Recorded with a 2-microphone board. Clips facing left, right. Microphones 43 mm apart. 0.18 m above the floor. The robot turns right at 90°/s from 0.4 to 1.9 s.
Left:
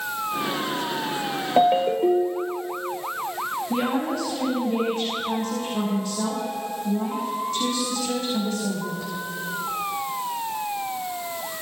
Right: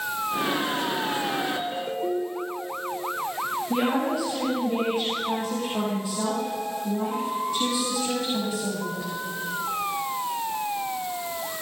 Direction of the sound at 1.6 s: 120° left.